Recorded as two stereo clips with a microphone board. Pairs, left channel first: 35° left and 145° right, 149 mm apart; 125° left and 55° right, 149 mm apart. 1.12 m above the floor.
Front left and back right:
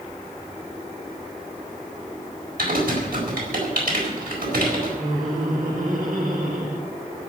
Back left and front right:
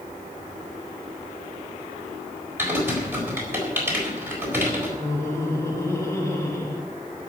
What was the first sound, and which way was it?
Typing on a keyboard, 130° right.